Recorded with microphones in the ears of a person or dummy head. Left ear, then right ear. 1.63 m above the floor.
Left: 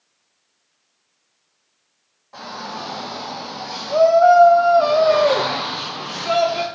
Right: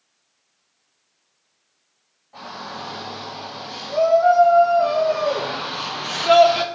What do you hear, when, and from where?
2.3 s a shout: 70° left (ahead or behind), 2.5 m; by 6.7 s 35° right (ahead or behind), 1.2 m